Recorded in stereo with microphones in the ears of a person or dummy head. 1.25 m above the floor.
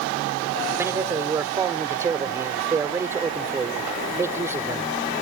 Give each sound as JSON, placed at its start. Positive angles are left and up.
{"t": 0.8, "sound": "a man speaking", "side_deg": -15}